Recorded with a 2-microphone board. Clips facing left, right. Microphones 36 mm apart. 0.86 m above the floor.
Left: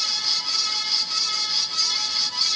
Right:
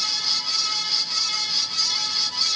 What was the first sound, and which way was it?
Only background noise.